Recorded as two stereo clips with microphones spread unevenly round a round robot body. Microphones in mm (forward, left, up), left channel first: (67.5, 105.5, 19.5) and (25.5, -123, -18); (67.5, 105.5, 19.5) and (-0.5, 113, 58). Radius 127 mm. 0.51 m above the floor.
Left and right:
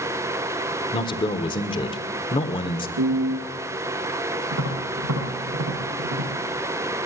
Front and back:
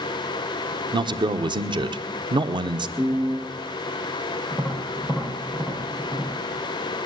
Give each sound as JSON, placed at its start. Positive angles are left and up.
{"t": 0.9, "sound": "a man speaking", "azimuth_deg": 155, "distance_m": 1.4}
{"t": 3.0, "sound": "a piano", "azimuth_deg": -85, "distance_m": 6.0}
{"t": 4.5, "sound": "tapping", "azimuth_deg": -90, "distance_m": 9.0}